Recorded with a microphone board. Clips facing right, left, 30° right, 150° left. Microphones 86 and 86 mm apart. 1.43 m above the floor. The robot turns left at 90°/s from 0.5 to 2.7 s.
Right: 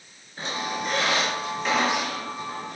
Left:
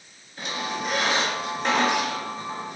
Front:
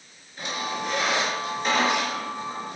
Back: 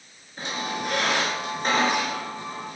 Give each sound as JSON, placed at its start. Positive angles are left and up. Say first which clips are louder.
{"t": 0.4, "sound": "a squeak", "louder": "even, even", "azimuth_deg": -150, "distance_m": 4.5}